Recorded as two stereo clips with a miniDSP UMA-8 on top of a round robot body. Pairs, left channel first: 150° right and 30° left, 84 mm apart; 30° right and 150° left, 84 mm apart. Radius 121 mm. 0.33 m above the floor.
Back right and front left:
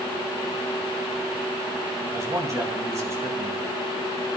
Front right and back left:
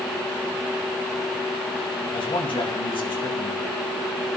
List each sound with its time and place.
2.1 s a man speaking: 20° right, 3 m